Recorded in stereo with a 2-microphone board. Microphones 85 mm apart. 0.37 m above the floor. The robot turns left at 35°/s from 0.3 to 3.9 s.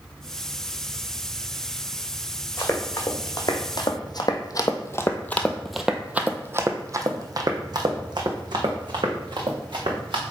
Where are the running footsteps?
25° left (ahead or behind), 1.7 m; by 10.2 s 70° right (ahead or behind), 2.5 m.